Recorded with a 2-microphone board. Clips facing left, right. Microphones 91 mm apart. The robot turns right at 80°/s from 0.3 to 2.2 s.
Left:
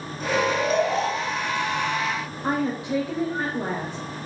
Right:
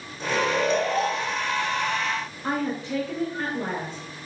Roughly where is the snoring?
Right.